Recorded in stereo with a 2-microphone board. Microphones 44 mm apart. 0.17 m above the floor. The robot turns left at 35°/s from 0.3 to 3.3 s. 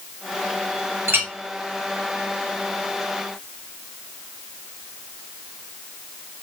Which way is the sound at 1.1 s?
65° right (ahead or behind).